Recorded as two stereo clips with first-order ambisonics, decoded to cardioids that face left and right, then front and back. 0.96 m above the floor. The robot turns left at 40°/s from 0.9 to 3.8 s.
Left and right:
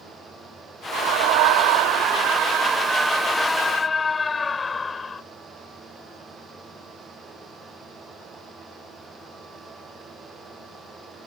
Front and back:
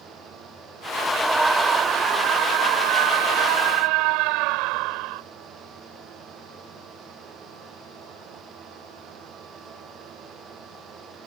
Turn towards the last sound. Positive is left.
turn(degrees=165)